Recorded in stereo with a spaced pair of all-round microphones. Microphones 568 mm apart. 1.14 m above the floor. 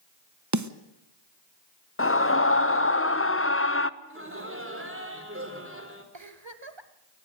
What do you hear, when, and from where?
0.5 s a snare drum: 30° right (ahead or behind), 0.9 m
2.0 s a scream: 20° left (ahead or behind), 0.9 m
4.0 s laughter: 20° right (ahead or behind), 4.5 m
6.1 s a giggle: 50° right (ahead or behind), 1.5 m